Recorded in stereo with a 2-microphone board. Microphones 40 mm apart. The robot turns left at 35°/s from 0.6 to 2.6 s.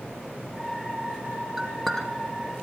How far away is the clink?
About 1.9 m.